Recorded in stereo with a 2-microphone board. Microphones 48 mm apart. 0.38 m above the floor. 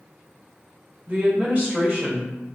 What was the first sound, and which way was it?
A woman speaking, 30° right (ahead or behind).